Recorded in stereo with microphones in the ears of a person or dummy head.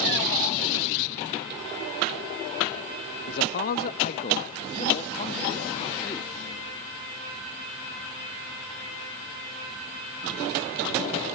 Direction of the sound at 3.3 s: 70° left (ahead or behind).